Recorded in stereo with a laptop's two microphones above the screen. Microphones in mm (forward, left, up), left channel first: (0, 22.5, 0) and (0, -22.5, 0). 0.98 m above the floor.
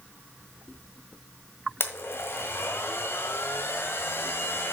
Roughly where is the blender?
Left.